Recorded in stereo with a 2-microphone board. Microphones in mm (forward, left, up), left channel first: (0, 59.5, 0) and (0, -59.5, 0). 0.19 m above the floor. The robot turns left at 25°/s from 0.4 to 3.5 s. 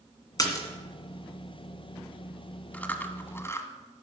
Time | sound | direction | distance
0.4 | a splash | 30° left (ahead or behind) | 2 m
2.7 | chewing | 15° left (ahead or behind) | 0.9 m